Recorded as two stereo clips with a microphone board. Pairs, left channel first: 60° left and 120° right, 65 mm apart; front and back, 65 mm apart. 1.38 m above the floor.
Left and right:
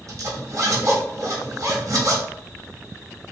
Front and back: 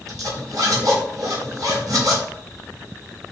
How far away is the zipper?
About 1.5 m.